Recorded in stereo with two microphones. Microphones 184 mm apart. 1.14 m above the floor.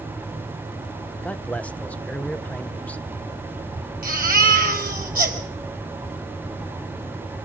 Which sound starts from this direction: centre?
A man speaking, at 1.2 s.